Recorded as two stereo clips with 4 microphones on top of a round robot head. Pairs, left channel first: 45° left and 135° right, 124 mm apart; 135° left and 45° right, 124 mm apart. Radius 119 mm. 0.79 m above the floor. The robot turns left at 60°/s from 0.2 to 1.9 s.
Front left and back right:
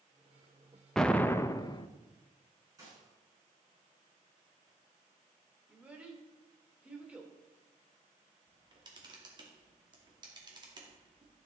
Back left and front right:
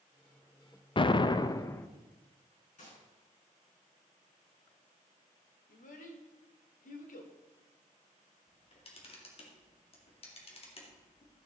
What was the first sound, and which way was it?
An explosion, 130° left.